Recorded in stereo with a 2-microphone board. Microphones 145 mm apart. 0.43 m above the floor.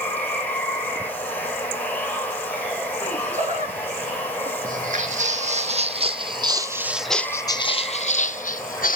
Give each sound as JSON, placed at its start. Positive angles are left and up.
{"t": 0.0, "sound": "running water", "side_deg": 10, "distance_m": 3.0}
{"t": 3.0, "sound": "laughter", "side_deg": -40, "distance_m": 7.0}
{"t": 4.6, "sound": "footsteps", "side_deg": -60, "distance_m": 1.7}